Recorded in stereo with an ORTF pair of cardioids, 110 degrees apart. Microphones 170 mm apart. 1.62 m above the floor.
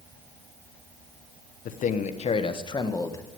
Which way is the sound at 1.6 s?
55° left.